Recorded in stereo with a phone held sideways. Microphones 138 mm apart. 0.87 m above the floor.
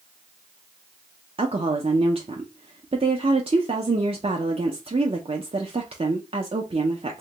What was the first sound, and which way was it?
A woman speaking, 45° right (ahead or behind).